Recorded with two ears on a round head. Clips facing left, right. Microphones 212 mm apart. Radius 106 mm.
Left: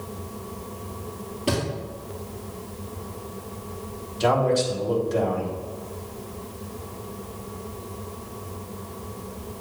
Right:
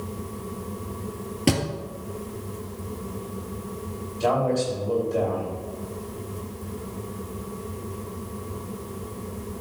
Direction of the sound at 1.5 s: 70° right (ahead or behind).